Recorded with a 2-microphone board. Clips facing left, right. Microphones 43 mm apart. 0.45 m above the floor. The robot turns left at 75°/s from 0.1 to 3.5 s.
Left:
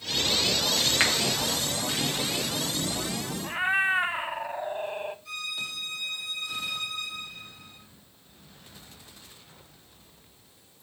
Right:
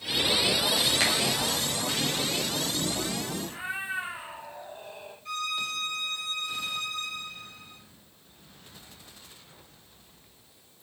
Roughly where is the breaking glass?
No breaking glass in this recording.